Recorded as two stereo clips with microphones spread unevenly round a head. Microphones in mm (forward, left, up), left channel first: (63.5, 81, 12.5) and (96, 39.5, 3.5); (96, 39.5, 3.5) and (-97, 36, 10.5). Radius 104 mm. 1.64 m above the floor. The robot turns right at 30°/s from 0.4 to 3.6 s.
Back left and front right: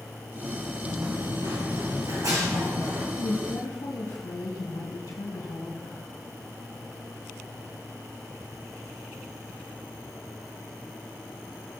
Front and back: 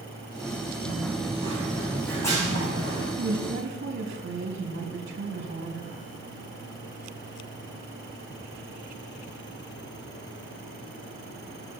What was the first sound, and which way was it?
Running footsteps, 125° right.